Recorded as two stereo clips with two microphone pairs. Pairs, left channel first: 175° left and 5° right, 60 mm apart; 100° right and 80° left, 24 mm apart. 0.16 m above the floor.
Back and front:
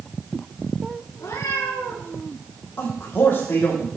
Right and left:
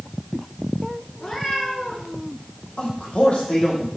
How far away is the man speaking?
About 5.5 m.